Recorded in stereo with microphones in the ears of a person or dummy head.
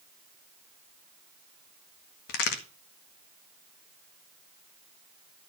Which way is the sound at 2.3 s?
65° left (ahead or behind).